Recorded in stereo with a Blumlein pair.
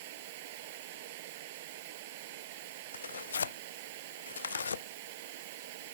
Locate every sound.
0.0 s running water: 50° right
2.9 s tearing paper: 70° left